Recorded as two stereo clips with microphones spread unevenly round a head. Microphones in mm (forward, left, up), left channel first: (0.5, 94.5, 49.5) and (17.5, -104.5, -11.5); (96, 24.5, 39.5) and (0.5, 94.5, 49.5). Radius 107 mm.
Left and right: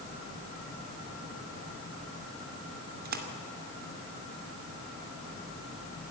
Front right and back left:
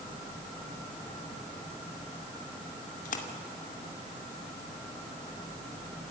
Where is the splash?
35° right, 2.5 m.